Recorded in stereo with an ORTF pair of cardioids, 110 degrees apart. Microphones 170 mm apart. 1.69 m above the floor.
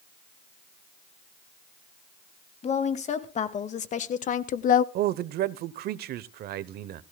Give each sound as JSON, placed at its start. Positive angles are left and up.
{"t": 2.6, "sound": "a woman speaking", "azimuth_deg": 45, "distance_m": 3.0}
{"t": 5.0, "sound": "a man speaking", "azimuth_deg": -70, "distance_m": 1.0}